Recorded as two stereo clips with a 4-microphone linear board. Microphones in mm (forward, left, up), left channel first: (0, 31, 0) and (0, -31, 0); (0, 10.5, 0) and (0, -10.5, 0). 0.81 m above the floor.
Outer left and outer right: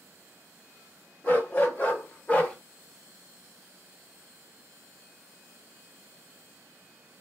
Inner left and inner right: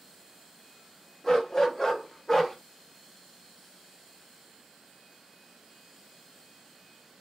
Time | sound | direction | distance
1.2 | a dog barking | 30° left (ahead or behind) | 0.8 m